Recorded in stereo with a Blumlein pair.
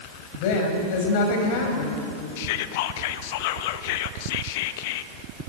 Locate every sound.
0.3 s a woman speaking: 50° left, 5.5 m
2.4 s whispering: 50° left, 1.3 m